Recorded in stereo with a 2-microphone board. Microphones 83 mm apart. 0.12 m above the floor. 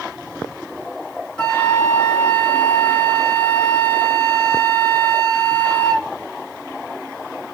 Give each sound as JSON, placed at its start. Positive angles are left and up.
{"t": 1.4, "sound": "a flute", "side_deg": 15, "distance_m": 0.8}